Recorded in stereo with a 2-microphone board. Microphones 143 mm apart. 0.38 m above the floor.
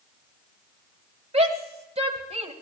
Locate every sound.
1.3 s a shout: 45° right (ahead or behind), 1.8 m